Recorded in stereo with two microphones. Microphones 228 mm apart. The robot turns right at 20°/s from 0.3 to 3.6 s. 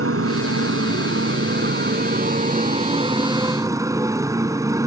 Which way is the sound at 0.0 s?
80° right.